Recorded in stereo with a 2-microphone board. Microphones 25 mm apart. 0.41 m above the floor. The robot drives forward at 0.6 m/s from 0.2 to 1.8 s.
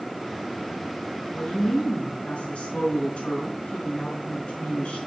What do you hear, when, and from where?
1.3 s a woman speaking: 55° left (ahead or behind), 5 m; by 5.0 s 60° left (ahead or behind), 5 m